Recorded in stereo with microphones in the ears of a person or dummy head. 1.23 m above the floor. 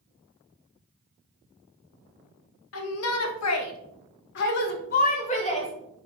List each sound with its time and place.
2.7 s a shout: 70° left (ahead or behind), 1.5 m; by 5.7 s 25° left (ahead or behind), 1.5 m